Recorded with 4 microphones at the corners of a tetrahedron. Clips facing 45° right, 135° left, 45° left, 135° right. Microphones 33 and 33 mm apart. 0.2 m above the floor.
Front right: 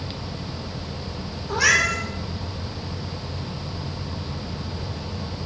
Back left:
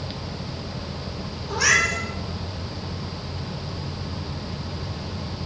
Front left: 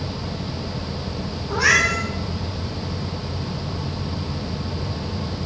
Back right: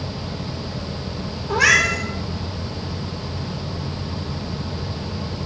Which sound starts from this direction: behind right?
A cat meowing, at 1.5 s.